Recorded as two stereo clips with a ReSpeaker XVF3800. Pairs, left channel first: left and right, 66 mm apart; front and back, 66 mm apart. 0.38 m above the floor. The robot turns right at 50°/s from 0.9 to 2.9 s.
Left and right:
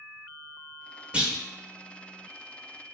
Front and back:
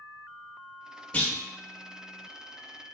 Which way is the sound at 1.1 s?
40° right.